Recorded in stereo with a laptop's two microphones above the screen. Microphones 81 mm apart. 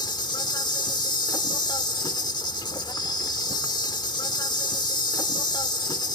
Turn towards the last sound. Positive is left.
turn(degrees=65)  # may be behind; listen again after turning